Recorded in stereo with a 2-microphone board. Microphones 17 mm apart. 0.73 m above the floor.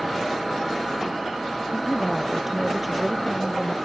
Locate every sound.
1.7 s a woman speaking: centre (ahead or behind); by 3.8 s 10° right (ahead or behind)